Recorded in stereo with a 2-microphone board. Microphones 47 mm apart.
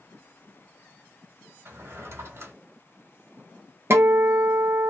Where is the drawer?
65° right (ahead or behind), 1.1 m.